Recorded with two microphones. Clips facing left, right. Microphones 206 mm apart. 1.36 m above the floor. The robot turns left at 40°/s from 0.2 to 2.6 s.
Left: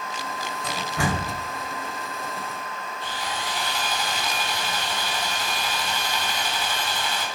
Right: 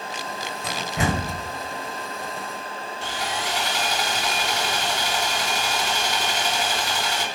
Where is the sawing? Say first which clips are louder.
Right 3 dB; 80° right, 3 m.